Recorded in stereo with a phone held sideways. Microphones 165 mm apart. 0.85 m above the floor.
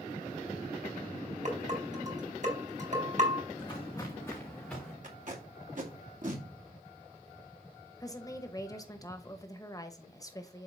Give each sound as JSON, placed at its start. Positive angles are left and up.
{"t": 1.4, "sound": "dishes clattering", "side_deg": -50, "distance_m": 4.0}
{"t": 3.5, "sound": "footsteps", "side_deg": 30, "distance_m": 3.0}
{"t": 5.0, "sound": "tape being pulled", "side_deg": -55, "distance_m": 2.0}
{"t": 8.0, "sound": "a woman speaking", "side_deg": 20, "distance_m": 1.0}